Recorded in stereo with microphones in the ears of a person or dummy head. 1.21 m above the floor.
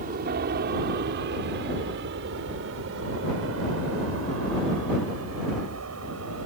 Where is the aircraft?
50° right (ahead or behind); by 6.5 s 80° right.